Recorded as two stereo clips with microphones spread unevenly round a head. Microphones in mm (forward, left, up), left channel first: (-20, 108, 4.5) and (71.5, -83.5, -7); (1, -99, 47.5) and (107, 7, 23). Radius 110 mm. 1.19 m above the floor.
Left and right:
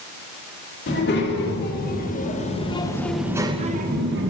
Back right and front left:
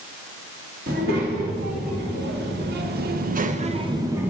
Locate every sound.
0.9 s a child speaking: 80° left, 2.5 m; by 4.3 s 35° right, 1.1 m